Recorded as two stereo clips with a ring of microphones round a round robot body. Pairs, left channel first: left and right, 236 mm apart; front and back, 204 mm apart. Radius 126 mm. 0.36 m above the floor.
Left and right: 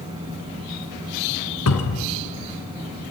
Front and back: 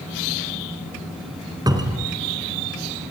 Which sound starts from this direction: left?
A cupboard door, at 1.7 s.